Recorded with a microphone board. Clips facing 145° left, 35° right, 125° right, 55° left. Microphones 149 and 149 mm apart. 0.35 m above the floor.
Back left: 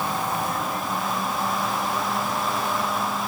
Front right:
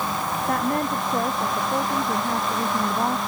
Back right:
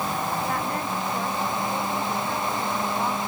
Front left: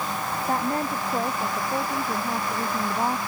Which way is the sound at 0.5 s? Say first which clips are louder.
Front right 4 dB, front left 2 dB; straight ahead.